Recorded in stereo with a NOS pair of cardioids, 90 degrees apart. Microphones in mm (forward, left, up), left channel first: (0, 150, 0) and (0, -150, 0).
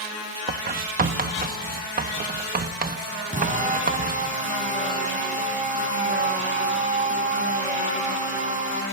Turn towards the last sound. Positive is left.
turn(degrees=-25)